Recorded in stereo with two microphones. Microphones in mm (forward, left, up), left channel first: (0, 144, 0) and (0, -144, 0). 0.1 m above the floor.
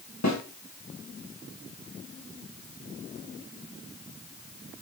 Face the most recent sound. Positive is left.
turn(degrees=70)  # may be behind; listen again after turning